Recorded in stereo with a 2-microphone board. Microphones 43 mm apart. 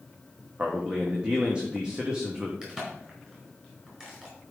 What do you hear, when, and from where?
0.6 s a man speaking: 20° right (ahead or behind), 1.2 m
2.6 s a crack: 20° right (ahead or behind), 4.5 m